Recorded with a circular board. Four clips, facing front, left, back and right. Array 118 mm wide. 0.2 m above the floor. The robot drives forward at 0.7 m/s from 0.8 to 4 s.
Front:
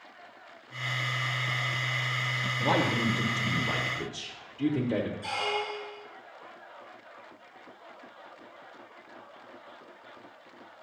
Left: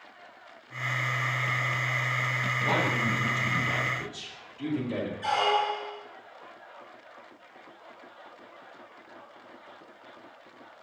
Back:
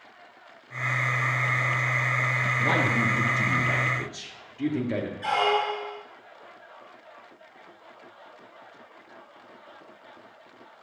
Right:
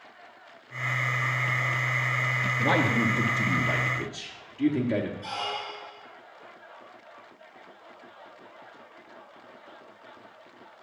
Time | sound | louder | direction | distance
2.6 | a man speaking | right 4 dB, even | 115° right | 2.5 m
5.2 | a squeak | left 9 dB, back 8 dB | 150° left | 0.6 m